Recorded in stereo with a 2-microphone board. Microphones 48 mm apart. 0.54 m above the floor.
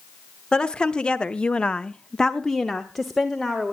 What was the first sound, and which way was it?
A woman speaking, 15° left (ahead or behind).